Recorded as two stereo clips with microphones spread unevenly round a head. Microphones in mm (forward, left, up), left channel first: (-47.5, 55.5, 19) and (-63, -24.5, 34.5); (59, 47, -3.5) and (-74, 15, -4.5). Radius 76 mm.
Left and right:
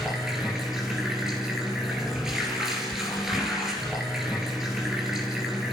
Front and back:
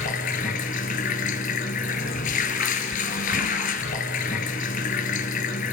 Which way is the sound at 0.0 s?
20° right.